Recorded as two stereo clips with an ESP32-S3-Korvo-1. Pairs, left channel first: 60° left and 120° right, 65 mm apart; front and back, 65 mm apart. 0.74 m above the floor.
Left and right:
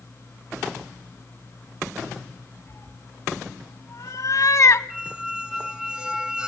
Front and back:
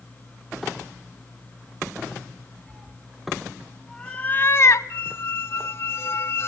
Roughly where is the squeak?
Ahead right.